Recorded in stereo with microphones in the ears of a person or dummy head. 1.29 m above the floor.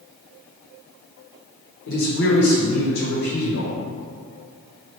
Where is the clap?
No clap in this recording.